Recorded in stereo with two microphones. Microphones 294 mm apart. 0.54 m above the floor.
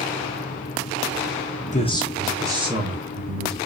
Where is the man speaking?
25° left (ahead or behind), 0.7 m; by 3.6 s 40° right (ahead or behind), 1.1 m.